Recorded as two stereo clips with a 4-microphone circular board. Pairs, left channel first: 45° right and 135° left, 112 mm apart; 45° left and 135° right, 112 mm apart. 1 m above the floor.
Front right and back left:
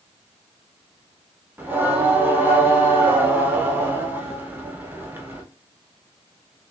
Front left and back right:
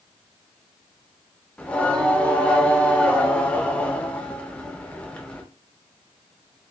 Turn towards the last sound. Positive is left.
turn(degrees=100)